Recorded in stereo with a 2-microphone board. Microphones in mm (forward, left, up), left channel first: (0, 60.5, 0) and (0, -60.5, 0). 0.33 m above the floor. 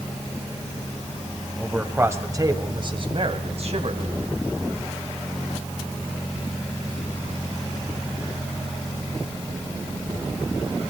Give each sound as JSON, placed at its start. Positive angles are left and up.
{"t": 1.6, "sound": "a man speaking", "side_deg": -10, "distance_m": 1.7}